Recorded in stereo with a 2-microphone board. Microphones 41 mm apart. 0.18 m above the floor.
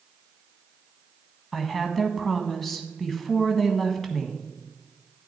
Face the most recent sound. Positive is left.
turn(degrees=5)  # may be behind; listen again after turning